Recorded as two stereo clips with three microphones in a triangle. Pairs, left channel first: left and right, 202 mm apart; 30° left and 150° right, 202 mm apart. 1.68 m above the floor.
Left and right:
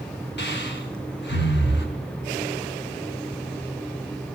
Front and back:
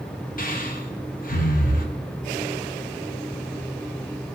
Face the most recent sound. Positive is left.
turn(degrees=70)